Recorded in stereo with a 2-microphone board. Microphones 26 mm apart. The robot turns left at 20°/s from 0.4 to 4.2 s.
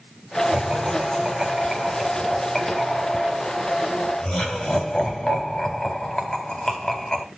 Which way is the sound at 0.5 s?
40° right (ahead or behind).